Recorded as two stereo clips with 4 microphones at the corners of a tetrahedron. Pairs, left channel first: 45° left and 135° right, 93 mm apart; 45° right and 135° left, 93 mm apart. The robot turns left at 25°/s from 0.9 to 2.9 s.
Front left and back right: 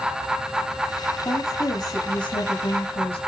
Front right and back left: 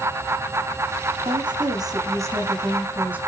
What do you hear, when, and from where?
1.2 s a woman speaking: 105° left, 7 m; by 3.2 s 60° left, 7 m